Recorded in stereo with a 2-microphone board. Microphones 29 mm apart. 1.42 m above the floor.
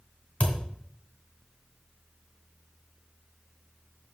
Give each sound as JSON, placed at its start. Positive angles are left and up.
{"t": 0.4, "sound": "a thud", "side_deg": 55, "distance_m": 2.5}